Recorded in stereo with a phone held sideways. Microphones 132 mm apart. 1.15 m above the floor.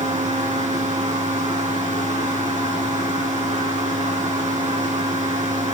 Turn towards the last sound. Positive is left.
turn(degrees=-65)  # may be behind; listen again after turning